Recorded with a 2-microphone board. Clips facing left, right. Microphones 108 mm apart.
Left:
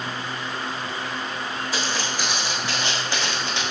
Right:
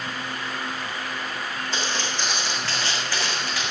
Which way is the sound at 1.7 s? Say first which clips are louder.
Left 1 dB; 5° left (ahead or behind).